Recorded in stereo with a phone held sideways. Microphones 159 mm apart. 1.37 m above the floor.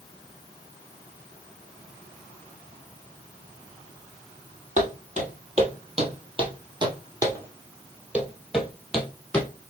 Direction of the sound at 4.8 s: 50° right (ahead or behind).